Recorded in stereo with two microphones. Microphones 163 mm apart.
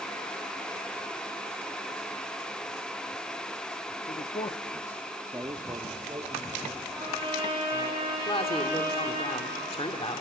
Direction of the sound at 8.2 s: 35° left (ahead or behind).